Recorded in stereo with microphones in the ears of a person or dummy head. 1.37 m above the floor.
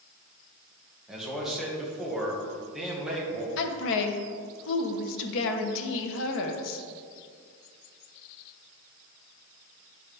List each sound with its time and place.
1.1 s a man speaking: centre (ahead or behind), 1.7 m
3.6 s a woman speaking: 70° left (ahead or behind), 1.1 m